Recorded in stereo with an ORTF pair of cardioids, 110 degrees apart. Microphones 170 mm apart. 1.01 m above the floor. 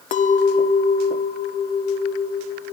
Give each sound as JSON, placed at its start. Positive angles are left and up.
{"t": 0.1, "sound": "a clink", "azimuth_deg": 50, "distance_m": 0.6}